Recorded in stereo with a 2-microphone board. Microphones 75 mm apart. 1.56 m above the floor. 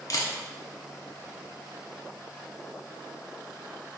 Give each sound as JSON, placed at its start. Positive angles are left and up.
{"t": 0.1, "sound": "a camera shutter", "side_deg": 50, "distance_m": 0.7}